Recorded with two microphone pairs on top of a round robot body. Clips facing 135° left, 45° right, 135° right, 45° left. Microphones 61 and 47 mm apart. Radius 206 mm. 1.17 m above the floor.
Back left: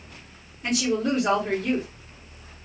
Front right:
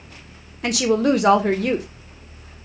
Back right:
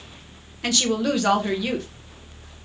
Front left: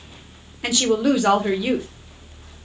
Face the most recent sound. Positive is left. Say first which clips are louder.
# front right 6 dB, front left 4 dB
turn(degrees=-35)